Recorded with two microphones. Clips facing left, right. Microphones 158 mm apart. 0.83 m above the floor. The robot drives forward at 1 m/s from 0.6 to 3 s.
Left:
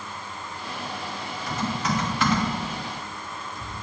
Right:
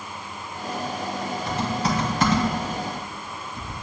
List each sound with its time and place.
1.5 s typing on a keyboard: 30° right (ahead or behind), 2.5 m; by 3.7 s 50° right (ahead or behind), 1.7 m